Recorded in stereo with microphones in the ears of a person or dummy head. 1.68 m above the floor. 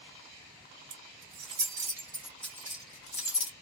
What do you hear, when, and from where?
0.9 s keys jangling: 30° right (ahead or behind), 1.2 m; by 3.5 s 40° left (ahead or behind), 0.8 m